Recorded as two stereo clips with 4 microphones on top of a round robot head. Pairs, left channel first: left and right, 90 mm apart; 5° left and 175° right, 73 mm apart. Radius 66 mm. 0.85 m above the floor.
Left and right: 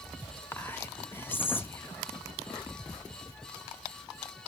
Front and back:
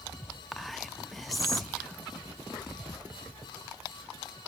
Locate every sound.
0.5 s whispering: 95° left, 0.9 m